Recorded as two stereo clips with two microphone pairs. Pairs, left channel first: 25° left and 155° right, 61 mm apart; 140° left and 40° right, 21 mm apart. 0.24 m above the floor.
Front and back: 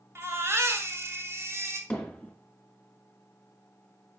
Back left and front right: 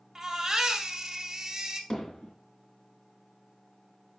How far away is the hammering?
About 2.5 m.